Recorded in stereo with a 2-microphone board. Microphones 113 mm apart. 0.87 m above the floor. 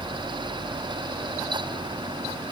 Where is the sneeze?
No sneeze in this recording.